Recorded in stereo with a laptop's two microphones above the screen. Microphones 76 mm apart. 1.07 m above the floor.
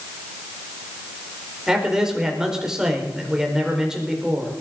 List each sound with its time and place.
1.7 s a man speaking: 10° right (ahead or behind), 4.5 m